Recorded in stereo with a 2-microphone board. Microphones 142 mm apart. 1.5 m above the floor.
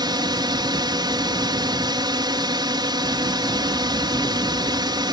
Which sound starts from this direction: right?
A drone, at 0.0 s.